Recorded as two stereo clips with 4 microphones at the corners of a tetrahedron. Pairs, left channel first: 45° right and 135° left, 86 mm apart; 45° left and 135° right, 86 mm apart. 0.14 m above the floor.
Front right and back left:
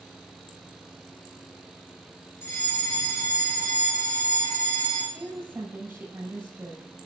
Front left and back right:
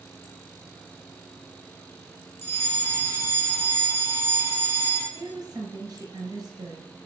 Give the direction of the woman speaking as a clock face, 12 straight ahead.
5 o'clock.